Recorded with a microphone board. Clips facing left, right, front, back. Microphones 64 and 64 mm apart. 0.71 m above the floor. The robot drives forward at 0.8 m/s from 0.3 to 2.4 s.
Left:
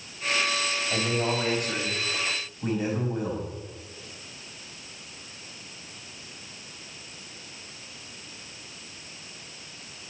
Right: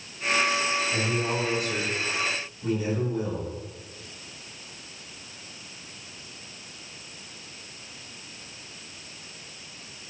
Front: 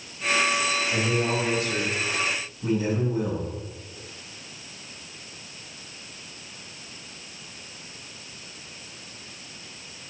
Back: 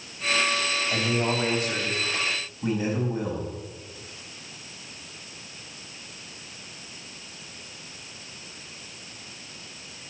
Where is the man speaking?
120° left, 4 m; by 3.5 s 135° left, 4.5 m.